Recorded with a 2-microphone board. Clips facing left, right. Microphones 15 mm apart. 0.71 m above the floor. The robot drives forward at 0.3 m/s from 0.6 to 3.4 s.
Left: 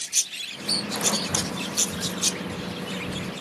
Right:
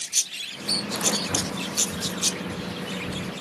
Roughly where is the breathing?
Right.